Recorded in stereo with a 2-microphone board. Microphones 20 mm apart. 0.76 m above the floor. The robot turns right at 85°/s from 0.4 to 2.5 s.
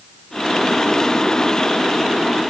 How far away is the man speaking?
I don't hear a man speaking.